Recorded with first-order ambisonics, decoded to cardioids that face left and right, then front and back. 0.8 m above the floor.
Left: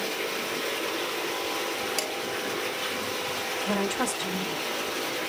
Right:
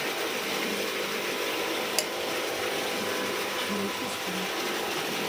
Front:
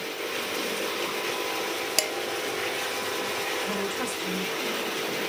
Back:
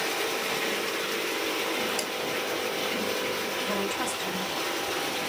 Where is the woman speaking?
90° left, 3 m.